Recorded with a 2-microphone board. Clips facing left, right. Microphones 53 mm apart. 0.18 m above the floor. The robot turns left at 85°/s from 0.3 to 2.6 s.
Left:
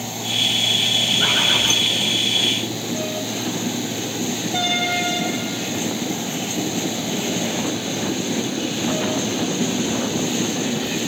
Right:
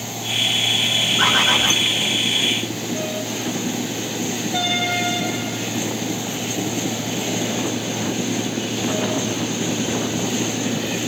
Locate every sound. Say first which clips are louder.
1.2 s a bird: right 4 dB; 105° right, 2.0 m; by 1.8 s 155° right, 2.0 m